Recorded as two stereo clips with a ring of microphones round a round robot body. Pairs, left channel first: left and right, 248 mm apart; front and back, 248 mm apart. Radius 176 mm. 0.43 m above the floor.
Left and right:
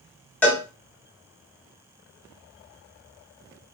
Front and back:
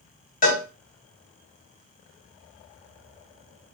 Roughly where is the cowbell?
Ahead.